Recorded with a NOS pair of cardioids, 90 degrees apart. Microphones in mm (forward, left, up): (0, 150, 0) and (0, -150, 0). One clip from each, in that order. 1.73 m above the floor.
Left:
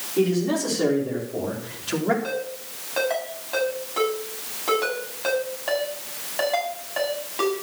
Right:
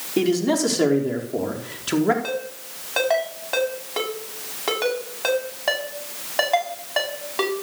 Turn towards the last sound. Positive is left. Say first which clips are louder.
# right 1 dB
turn(degrees=-40)